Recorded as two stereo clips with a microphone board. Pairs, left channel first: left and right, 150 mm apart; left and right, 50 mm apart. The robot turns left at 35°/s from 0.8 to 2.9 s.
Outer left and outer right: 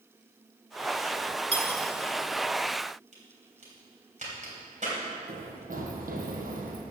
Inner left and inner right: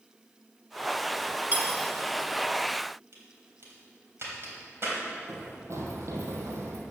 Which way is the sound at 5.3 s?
65° right (ahead or behind).